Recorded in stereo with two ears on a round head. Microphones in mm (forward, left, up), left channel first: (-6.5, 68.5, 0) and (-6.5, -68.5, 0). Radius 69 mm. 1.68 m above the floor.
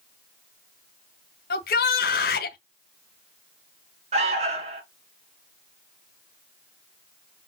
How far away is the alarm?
About 2.5 m.